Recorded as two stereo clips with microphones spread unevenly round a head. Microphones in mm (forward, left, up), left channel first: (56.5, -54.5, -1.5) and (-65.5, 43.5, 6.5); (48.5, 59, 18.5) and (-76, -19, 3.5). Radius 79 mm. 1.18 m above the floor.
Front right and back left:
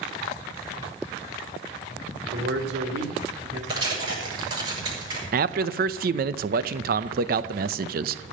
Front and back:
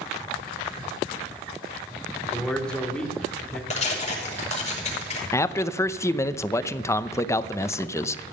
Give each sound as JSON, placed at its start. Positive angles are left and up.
{"t": 2.3, "sound": "a man speaking", "azimuth_deg": 115, "distance_m": 2.5}
{"t": 3.7, "sound": "tearing paper", "azimuth_deg": 75, "distance_m": 6.0}
{"t": 5.3, "sound": "a man speaking", "azimuth_deg": 105, "distance_m": 0.7}